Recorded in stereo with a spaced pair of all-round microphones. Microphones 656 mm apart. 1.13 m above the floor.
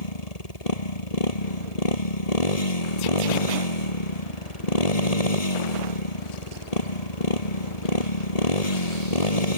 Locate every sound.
0.0 s a motorcycle: 70° left (ahead or behind)